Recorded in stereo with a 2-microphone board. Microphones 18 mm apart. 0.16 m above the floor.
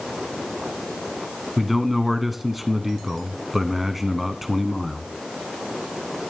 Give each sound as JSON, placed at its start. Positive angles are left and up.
{"t": 1.6, "sound": "a man speaking", "side_deg": -10, "distance_m": 1.1}